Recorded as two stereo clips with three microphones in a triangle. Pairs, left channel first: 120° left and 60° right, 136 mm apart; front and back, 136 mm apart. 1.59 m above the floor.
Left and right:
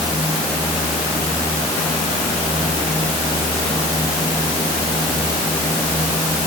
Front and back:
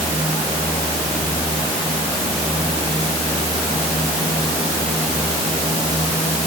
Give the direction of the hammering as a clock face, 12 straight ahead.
No hammering in this recording.